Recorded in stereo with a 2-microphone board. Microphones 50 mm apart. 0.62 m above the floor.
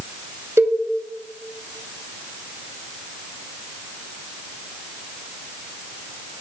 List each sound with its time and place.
0.6 s a cowbell: 65° right (ahead or behind), 3 m